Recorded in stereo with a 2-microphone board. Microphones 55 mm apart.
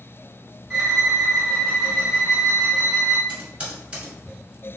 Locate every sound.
0.7 s a violin: 10° right (ahead or behind), 1.7 m
3.3 s typing on a keyboard: 25° right (ahead or behind), 1.8 m